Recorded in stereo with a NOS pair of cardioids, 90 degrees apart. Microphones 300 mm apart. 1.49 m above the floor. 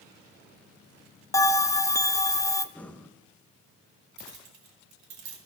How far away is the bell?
About 0.8 m.